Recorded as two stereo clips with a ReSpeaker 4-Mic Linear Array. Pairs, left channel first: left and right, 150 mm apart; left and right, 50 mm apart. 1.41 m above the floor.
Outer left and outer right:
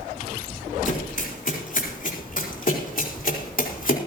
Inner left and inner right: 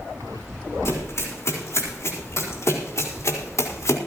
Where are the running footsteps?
55° left (ahead or behind), 5.5 m; by 4.0 s 65° left (ahead or behind), 4 m.